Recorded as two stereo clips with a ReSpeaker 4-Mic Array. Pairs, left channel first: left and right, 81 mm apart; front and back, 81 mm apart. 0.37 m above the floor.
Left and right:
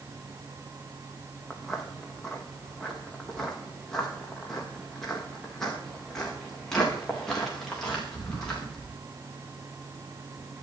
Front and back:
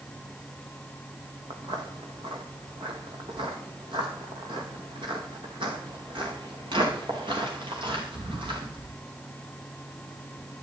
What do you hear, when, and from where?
1.5 s footsteps: straight behind, 2.5 m; by 8.9 s 175° left, 6.5 m